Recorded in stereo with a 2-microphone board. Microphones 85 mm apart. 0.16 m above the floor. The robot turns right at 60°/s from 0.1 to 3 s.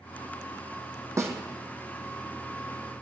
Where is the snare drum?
35° right (ahead or behind), 1.1 m; by 1.3 s 25° right (ahead or behind), 1.1 m.